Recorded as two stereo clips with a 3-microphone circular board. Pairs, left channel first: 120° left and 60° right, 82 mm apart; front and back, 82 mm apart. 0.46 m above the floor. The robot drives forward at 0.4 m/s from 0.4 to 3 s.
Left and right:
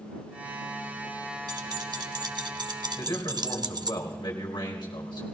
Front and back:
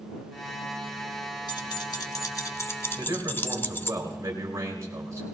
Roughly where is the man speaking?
Behind left.